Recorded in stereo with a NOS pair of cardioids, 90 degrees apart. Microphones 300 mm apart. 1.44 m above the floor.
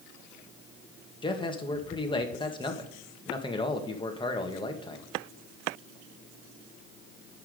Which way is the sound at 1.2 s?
15° left.